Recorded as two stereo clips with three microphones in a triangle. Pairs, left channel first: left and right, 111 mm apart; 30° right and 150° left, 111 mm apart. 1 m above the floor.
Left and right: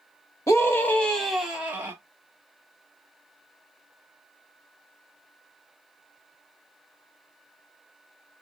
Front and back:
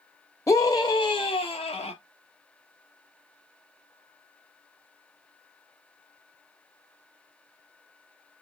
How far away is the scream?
About 1.6 m.